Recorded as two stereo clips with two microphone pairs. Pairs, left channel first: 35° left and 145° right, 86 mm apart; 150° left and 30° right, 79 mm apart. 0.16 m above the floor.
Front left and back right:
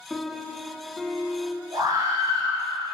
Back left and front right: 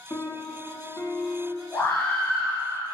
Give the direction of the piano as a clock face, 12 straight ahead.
8 o'clock.